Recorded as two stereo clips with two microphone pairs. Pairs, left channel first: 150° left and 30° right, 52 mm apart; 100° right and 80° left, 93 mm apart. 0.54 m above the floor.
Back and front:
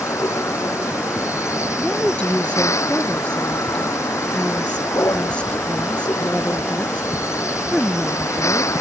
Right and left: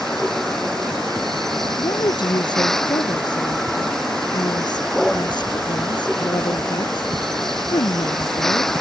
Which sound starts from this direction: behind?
A vehicle, at 0.0 s.